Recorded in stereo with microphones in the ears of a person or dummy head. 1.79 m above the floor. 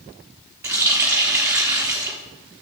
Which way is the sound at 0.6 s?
15° right (ahead or behind).